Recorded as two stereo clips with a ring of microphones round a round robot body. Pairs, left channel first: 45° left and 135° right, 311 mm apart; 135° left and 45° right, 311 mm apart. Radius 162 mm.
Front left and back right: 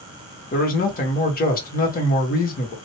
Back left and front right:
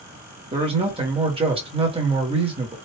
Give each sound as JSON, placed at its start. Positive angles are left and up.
{"t": 0.5, "sound": "a man speaking", "azimuth_deg": 15, "distance_m": 1.4}